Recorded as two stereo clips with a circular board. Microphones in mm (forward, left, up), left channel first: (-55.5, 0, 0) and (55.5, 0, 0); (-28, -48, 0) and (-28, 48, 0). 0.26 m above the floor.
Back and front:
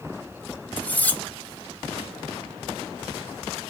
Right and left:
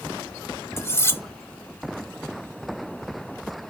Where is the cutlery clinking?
120° right, 0.6 m.